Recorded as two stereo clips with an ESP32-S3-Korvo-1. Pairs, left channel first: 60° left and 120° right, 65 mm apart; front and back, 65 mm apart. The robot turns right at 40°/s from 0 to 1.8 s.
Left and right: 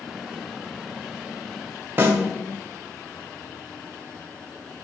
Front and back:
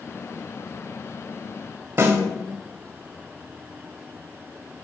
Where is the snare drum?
160° right, 1.2 m.